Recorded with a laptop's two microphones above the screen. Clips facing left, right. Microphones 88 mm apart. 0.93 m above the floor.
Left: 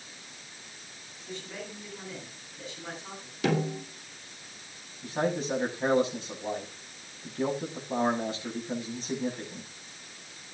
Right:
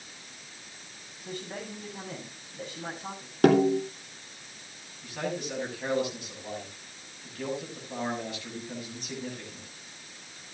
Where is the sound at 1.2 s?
50° right (ahead or behind), 8 m.